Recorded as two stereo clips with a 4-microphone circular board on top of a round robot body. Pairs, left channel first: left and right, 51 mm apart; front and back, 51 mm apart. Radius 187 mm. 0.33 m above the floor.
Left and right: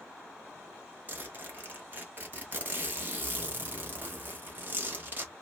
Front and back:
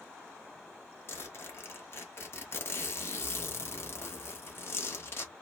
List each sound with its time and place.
1.1 s a zipper: 40° right, 1.2 m